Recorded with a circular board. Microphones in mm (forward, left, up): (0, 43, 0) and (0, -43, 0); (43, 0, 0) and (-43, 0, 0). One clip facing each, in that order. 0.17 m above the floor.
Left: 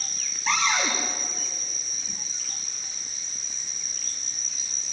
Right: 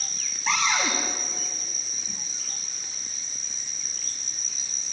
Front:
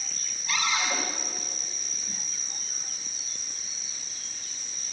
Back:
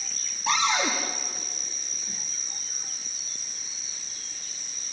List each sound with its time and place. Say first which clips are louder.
0.5 s a cupboard door: even, back 4 dB; straight behind, 8 m